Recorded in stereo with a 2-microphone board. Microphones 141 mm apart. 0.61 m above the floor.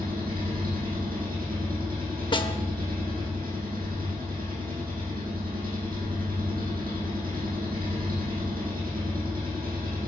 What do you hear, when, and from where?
0.0 s an engine running: 85° right, 6 m
2.3 s a snare drum: 35° left (ahead or behind), 0.9 m